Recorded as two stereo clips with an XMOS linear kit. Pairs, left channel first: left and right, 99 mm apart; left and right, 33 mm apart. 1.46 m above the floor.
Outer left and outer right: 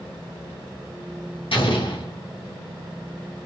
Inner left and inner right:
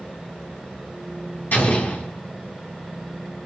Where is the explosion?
70° left (ahead or behind), 3.5 m.